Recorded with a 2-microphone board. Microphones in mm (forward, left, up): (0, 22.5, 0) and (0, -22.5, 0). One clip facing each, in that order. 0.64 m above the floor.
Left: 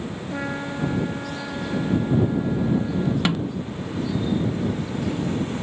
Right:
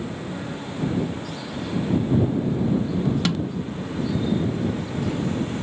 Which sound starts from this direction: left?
A trumpet, at 0.3 s.